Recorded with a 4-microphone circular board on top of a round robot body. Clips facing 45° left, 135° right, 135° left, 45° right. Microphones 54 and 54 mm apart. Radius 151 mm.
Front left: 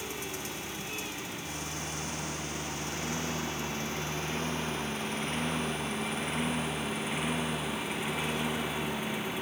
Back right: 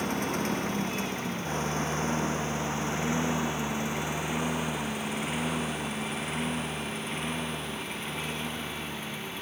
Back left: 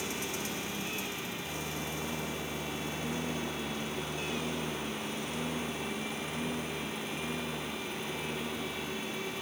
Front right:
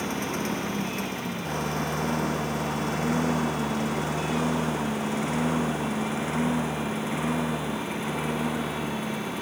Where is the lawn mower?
90° right; by 9.4 s 30° right.